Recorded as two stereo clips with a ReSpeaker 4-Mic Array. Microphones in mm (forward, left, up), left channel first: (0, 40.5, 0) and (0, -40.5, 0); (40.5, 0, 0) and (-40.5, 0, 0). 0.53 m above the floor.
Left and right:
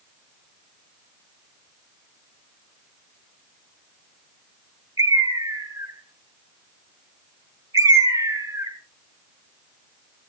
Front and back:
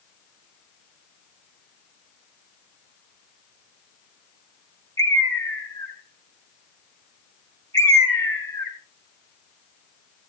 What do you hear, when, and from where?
5.0 s a bird: 55° right, 2.5 m